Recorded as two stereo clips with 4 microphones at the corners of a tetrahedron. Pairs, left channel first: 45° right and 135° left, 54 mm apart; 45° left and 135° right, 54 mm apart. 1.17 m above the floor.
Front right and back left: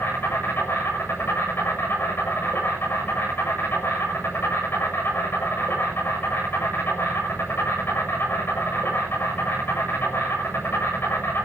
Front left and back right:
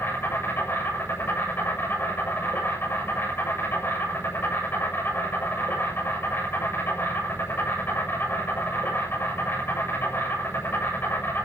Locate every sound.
0.0 s an insect: straight ahead, 7 m